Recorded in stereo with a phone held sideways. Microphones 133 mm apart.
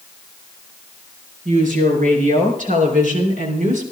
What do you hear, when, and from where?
1.4 s a woman speaking: 80° right, 4.5 m; by 3.8 s 75° right (ahead or behind), 3 m